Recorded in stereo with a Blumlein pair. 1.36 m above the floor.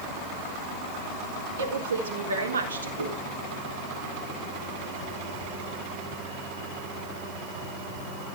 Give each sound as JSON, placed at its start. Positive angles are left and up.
{"t": 1.6, "sound": "a woman speaking", "azimuth_deg": -60, "distance_m": 4.0}
{"t": 3.0, "sound": "a whoosh", "azimuth_deg": -60, "distance_m": 7.5}